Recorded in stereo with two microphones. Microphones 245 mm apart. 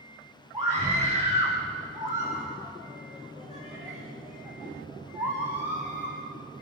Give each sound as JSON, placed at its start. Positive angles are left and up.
{"t": 0.5, "sound": "a scream", "side_deg": -20, "distance_m": 8.5}